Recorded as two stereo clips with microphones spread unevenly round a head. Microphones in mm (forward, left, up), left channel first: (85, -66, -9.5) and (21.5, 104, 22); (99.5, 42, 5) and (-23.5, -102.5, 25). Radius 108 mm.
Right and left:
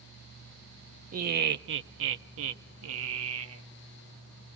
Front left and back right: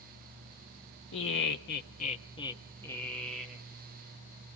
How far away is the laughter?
About 0.9 m.